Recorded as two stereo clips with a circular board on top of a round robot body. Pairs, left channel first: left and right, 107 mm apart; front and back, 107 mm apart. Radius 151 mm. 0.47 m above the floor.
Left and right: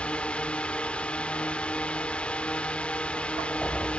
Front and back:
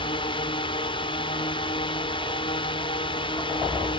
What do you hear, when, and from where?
0.0 s a drone: 15° left